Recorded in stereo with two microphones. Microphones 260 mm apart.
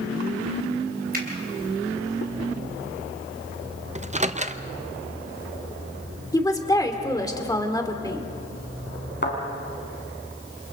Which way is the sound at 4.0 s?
25° right (ahead or behind).